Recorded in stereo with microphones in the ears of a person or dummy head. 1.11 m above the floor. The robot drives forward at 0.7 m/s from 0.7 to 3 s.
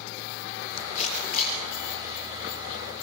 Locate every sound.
0.9 s a camera shutter: 50° left (ahead or behind), 7.5 m; by 1.6 s 55° left (ahead or behind), 7.5 m